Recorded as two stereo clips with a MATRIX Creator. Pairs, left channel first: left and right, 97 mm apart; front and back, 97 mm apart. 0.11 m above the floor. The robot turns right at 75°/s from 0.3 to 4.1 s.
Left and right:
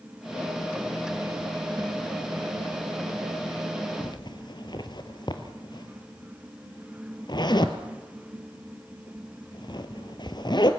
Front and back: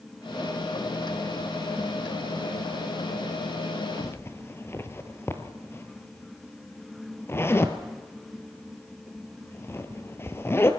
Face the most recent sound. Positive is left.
turn(degrees=60)